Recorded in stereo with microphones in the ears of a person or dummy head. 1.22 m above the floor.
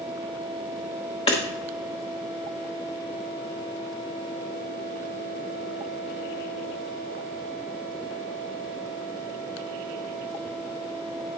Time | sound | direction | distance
1.3 | hammering | 30° left (ahead or behind) | 1.0 m